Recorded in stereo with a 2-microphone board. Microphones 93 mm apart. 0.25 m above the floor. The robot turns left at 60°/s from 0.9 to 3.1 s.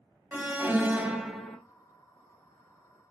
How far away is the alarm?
About 0.8 m.